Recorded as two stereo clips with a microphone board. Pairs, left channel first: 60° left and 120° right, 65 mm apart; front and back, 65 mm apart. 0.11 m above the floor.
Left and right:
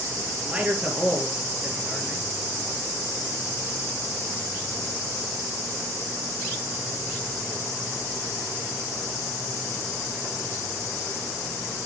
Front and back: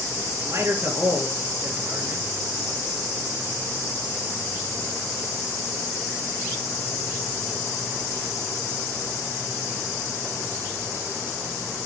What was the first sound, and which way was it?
A man speaking, 175° left.